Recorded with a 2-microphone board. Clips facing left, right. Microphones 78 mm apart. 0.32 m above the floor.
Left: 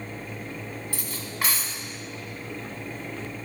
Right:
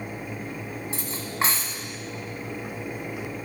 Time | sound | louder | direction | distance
0.9 | cutlery clinking | right 3 dB | 30° right (ahead or behind) | 1.5 m